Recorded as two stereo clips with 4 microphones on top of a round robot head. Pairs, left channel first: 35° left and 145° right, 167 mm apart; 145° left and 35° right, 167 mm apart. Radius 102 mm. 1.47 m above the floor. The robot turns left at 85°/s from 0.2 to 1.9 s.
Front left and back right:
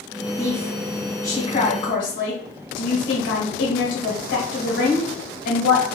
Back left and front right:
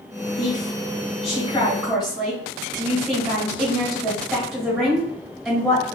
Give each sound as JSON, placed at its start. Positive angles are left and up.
{"t": 0.4, "sound": "a woman speaking", "azimuth_deg": -175, "distance_m": 1.6}